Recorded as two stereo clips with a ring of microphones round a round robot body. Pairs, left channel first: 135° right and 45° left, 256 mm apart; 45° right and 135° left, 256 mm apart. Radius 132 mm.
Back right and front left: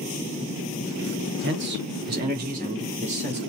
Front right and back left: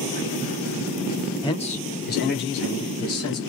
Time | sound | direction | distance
1.4 | a man speaking | 25° left | 1.3 m